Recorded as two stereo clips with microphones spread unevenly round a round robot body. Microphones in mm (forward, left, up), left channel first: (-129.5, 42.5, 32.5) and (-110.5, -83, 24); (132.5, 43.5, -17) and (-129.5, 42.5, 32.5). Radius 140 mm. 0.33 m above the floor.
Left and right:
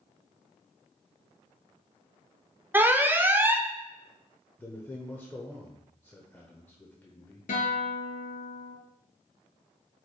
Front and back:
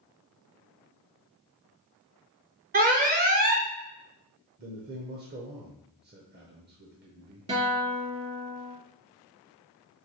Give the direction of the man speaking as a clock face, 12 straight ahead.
7 o'clock.